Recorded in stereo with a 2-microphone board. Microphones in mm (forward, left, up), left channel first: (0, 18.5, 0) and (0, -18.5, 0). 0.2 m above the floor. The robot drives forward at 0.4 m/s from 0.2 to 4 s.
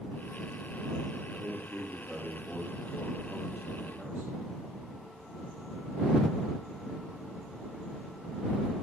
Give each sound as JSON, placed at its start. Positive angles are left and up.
{"t": 1.3, "sound": "a man speaking", "side_deg": -70, "distance_m": 3.5}